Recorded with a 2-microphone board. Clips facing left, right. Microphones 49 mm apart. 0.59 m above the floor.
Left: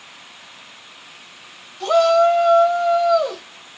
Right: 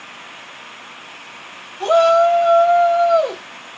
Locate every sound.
1.8 s a shout: 35° right (ahead or behind), 1.6 m